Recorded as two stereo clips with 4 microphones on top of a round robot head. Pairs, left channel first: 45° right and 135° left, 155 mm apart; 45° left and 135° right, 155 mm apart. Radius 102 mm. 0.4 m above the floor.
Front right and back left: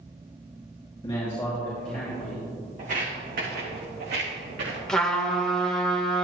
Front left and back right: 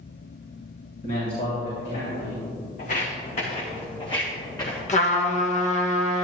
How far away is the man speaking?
About 3 m.